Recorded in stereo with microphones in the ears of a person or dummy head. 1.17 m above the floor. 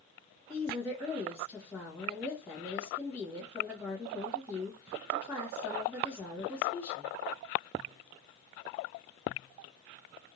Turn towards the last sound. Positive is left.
turn(degrees=10)  # may be behind; listen again after turning